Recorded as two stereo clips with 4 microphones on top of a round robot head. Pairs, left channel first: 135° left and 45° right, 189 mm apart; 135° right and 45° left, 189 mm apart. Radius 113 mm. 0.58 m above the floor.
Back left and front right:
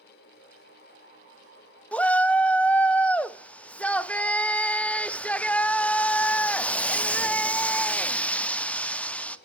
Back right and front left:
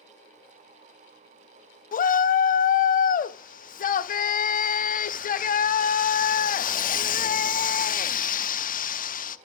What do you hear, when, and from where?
1.9 s a shout: 145° right, 0.7 m